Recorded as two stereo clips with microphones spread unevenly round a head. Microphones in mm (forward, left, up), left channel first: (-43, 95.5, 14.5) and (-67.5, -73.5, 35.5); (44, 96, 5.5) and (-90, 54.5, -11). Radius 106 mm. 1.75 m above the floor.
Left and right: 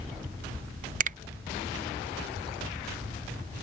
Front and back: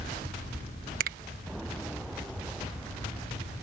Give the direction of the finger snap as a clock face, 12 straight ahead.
4 o'clock.